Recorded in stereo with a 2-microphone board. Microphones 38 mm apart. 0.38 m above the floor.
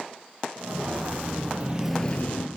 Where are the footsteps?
55° right (ahead or behind), 2.5 m; by 2.5 s 70° left (ahead or behind), 0.8 m.